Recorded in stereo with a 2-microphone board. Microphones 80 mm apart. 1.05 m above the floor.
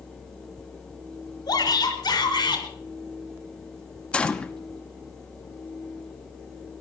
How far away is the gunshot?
About 1.0 m.